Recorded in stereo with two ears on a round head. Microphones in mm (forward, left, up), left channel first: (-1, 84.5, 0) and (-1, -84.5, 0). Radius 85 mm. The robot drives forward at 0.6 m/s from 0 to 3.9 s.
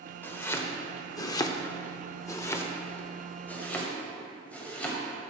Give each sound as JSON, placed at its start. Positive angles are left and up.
{"t": 0.2, "sound": "chopping", "side_deg": 10, "distance_m": 1.0}